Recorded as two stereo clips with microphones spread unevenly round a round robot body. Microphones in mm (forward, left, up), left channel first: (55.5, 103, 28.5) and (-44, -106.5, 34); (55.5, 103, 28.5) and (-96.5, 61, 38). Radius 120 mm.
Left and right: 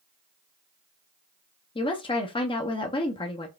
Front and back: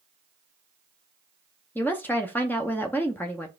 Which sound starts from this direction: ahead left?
A woman speaking, at 1.8 s.